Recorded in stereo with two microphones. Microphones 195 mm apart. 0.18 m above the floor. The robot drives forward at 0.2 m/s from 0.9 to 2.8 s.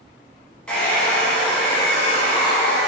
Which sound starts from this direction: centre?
A hair dryer, at 0.7 s.